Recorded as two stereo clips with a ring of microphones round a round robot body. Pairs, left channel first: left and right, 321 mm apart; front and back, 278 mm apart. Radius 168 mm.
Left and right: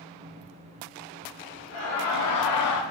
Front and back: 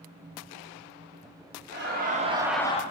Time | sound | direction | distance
1.7 | laughter | 130° left | 1.3 m